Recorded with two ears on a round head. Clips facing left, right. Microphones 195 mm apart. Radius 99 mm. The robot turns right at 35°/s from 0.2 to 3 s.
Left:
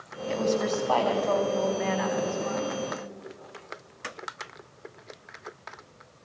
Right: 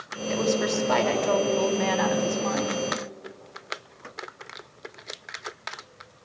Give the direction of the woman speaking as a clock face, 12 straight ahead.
6 o'clock.